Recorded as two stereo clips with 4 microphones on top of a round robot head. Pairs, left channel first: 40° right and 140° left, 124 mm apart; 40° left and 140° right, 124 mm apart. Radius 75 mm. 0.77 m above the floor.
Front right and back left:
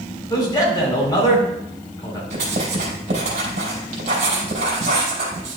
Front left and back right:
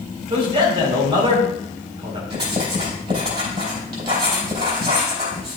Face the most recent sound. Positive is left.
turn(degrees=175)